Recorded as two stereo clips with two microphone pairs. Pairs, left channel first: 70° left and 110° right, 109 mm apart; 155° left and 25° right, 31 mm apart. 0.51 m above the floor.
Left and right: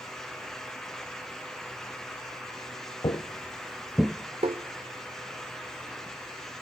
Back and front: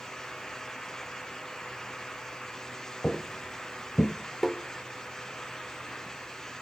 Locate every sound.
3.0 s footsteps: 80° left, 0.7 m; by 4.1 s straight behind, 0.6 m
4.4 s tapping: 110° right, 0.6 m